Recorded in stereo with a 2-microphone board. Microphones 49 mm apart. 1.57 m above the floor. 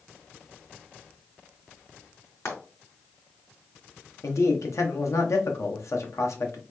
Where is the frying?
60° left (ahead or behind), 3 m.